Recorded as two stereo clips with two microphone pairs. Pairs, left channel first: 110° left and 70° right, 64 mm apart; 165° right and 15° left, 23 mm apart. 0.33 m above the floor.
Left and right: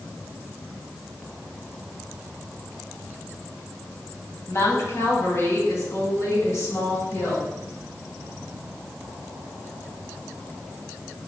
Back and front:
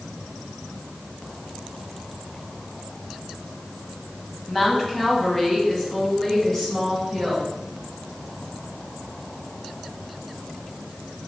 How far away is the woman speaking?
About 2 m.